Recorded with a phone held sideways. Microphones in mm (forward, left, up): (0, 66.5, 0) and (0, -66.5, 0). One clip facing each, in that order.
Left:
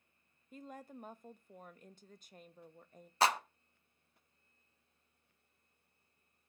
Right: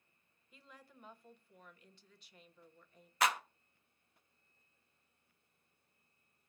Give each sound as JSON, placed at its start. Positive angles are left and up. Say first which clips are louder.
{"t": 0.5, "sound": "a woman speaking", "louder": "left 11 dB", "side_deg": 45, "distance_m": 0.6}
{"t": 3.2, "sound": "a clap", "louder": "left 3 dB", "side_deg": 30, "distance_m": 0.8}